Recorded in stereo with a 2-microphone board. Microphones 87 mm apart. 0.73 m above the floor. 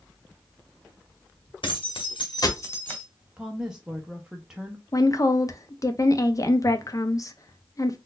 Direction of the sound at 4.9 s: 40° left (ahead or behind).